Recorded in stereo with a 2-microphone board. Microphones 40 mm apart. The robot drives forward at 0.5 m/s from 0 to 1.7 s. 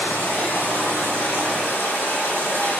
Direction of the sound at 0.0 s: 55° left (ahead or behind).